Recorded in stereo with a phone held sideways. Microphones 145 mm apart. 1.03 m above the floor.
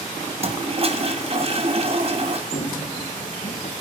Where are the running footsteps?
65° left (ahead or behind), 3.5 m; by 3.7 s 55° left (ahead or behind), 3 m.